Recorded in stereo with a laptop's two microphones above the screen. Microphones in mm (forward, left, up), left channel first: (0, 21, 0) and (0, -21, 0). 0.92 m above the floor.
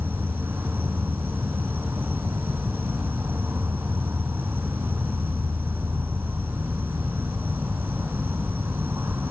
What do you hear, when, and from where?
0.0 s an insect: 55° right (ahead or behind), 1.4 m